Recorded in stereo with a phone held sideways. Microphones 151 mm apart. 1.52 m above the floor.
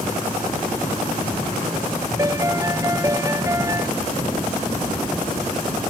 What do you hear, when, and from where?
2.2 s a piano: 20° right (ahead or behind)